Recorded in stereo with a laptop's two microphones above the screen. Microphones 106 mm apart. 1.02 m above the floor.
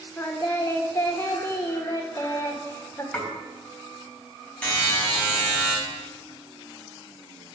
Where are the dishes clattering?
5° left (ahead or behind), 3.5 m.